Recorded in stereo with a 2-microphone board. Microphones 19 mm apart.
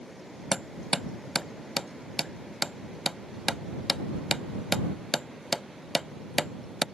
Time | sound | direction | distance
0.5 | hammering | 5° left (ahead or behind) | ?